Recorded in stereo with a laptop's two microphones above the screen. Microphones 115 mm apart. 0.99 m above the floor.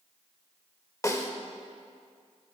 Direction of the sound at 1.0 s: 25° left (ahead or behind).